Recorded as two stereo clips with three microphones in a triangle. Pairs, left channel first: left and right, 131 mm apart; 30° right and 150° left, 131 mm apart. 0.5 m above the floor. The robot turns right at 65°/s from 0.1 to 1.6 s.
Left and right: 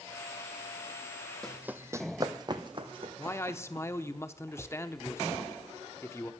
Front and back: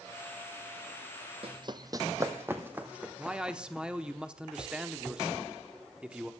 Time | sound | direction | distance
1.4 | running footsteps | 175° left | 0.8 m
3.2 | a man speaking | 80° left | 0.8 m